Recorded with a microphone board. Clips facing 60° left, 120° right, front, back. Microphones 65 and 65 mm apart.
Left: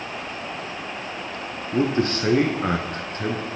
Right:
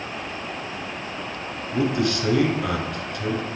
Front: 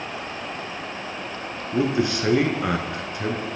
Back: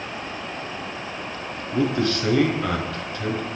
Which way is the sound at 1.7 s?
60° left.